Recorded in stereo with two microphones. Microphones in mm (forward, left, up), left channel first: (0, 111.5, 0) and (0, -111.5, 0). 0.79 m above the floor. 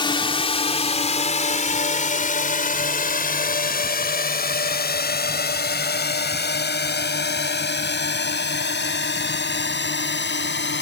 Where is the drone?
20° left (ahead or behind); by 10.8 s 55° left (ahead or behind).